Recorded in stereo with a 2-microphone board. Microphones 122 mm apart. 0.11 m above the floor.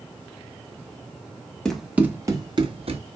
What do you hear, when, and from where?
1.6 s running footsteps: 5° left (ahead or behind), 1.6 m; by 3.0 s 50° right (ahead or behind), 2 m